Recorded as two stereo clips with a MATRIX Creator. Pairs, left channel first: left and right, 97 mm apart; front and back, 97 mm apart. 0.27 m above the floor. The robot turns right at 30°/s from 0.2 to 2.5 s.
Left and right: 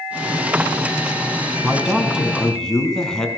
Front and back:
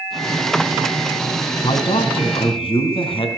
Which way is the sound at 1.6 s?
20° right.